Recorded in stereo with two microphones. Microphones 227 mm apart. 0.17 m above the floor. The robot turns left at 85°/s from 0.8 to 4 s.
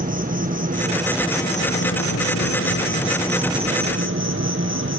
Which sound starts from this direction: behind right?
An insect, at 0.0 s.